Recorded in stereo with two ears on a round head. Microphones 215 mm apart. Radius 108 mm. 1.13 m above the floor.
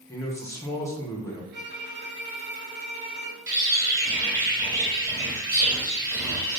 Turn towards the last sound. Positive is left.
turn(degrees=-15)  # may be behind; listen again after turning